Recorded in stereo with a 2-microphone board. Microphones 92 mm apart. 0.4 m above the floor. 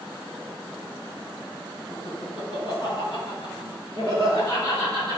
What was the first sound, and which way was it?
Laughter, 50° left (ahead or behind).